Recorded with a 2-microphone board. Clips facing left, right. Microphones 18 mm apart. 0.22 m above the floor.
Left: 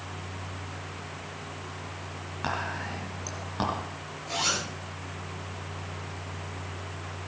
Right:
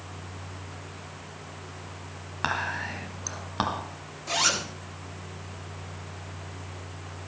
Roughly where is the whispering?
Right.